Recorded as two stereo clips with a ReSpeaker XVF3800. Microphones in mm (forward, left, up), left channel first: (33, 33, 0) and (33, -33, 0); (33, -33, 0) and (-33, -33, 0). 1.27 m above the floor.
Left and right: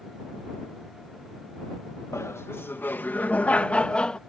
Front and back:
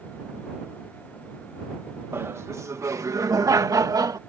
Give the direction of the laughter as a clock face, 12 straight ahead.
8 o'clock.